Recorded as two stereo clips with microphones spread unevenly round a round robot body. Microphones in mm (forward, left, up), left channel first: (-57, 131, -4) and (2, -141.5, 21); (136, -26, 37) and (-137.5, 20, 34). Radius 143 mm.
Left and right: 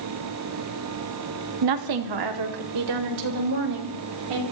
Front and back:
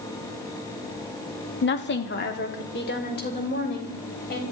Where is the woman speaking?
60° right, 1.6 m; by 4.4 s 70° right, 6 m.